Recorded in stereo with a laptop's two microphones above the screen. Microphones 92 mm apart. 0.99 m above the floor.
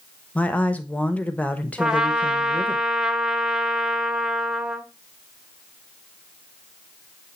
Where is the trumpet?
10° right (ahead or behind), 1.0 m.